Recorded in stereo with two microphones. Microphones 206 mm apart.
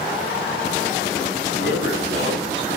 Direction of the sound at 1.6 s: 65° right (ahead or behind).